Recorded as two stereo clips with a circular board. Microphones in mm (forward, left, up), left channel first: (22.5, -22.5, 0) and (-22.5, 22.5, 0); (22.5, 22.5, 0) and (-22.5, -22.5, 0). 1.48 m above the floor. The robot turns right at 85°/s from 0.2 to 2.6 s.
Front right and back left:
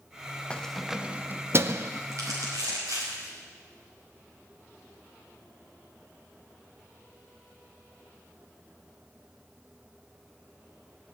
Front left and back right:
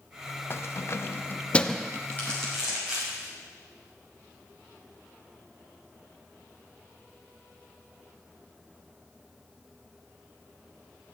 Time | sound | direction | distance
0.5 | keys jangling | 20° left | 0.5 m
2.1 | crumpling | 100° left | 6 m